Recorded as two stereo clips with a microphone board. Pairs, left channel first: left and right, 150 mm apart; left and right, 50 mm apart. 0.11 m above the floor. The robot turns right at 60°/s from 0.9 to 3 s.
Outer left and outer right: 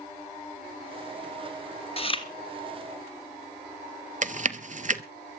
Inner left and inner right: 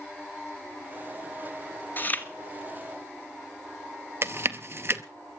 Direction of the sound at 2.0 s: 40° left (ahead or behind).